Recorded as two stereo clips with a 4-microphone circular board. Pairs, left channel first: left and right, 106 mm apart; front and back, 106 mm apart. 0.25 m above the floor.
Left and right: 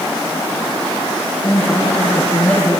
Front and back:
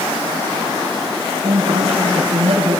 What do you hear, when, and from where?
1.4 s a woman speaking: 155° left, 3.5 m